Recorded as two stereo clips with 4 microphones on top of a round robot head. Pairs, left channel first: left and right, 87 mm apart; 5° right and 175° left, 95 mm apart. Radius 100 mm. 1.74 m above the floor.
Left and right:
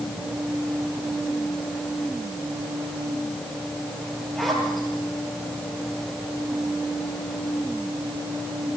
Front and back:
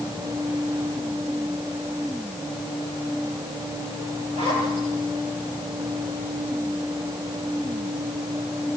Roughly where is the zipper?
Behind.